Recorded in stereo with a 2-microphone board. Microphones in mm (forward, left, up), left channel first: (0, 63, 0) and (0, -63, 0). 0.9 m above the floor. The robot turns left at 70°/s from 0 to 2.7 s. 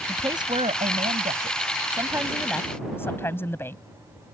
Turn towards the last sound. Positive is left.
turn(degrees=160)